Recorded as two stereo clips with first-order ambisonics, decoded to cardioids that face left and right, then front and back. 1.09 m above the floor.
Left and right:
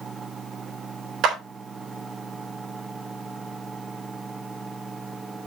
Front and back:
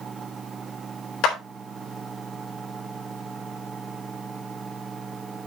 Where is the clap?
40° right, 3.5 m.